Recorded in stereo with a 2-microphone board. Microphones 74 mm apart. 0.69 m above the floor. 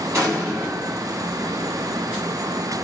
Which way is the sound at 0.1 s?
45° right (ahead or behind).